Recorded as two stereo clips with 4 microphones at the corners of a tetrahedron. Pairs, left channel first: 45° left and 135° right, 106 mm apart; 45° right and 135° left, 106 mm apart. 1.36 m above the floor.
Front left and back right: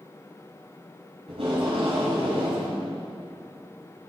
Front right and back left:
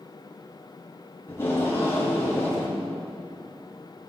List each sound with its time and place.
1.3 s tape being pulled: 110° right, 7 m